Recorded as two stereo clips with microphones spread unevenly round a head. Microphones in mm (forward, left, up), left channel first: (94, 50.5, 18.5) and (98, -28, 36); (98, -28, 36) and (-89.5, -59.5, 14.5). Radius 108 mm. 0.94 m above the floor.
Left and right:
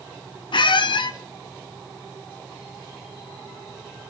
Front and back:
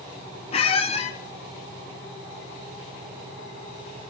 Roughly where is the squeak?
Left.